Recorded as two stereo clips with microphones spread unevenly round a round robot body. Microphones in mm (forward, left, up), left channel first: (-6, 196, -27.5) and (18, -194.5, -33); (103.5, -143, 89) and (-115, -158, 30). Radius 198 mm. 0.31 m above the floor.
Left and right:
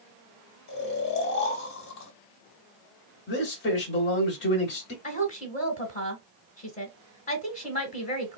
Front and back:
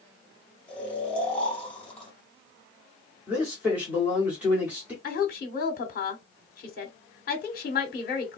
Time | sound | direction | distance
0.7 | snoring | 110° left | 1.4 m
3.3 | a man speaking | 135° left | 1.0 m
5.0 | a woman speaking | 35° left | 0.9 m